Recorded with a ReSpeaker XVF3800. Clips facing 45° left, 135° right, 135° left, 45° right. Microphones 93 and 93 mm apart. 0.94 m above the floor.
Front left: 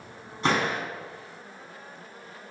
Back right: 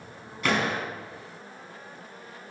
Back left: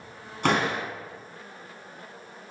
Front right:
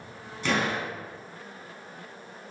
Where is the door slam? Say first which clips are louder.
Front left 1 dB, back left 3 dB; 105° left, 5.5 m.